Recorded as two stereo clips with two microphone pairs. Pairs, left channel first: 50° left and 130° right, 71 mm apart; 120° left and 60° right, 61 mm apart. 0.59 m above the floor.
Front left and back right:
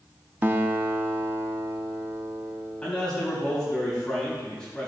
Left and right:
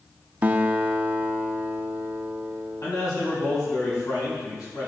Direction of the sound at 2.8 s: 130° left.